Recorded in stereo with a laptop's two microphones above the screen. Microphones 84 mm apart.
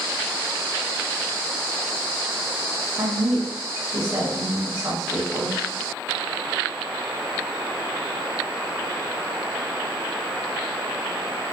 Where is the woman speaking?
35° right (ahead or behind), 1.8 m.